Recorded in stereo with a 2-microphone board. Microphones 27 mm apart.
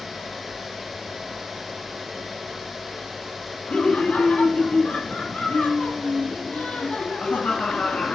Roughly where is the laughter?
Left.